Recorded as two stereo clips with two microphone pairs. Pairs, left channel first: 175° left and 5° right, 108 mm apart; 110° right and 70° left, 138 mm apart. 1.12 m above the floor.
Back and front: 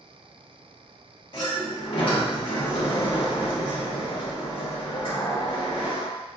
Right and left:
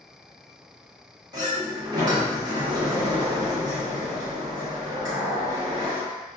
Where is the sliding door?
135° left, 1.1 m.